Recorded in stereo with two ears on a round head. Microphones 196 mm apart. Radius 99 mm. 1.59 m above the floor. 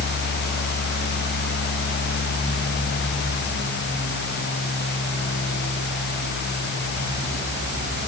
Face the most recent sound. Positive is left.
No sound to turn to.